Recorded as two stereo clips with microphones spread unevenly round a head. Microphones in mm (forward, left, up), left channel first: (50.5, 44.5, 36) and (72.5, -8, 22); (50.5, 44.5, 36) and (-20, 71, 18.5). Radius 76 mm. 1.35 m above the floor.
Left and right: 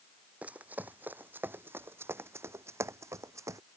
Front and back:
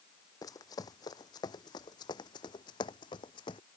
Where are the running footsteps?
5° left; by 3.6 s 30° right.